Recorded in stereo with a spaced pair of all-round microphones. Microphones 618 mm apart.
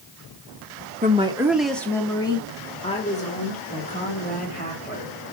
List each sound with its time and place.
1.0 s a woman speaking: 15° right (ahead or behind), 0.9 m; by 5.1 s 15° left (ahead or behind), 5 m